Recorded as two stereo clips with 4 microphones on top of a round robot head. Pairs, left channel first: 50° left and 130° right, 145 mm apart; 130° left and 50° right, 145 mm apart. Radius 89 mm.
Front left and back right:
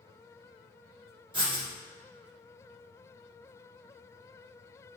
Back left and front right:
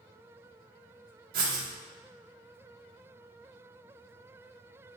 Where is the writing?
70° right, 1.9 m.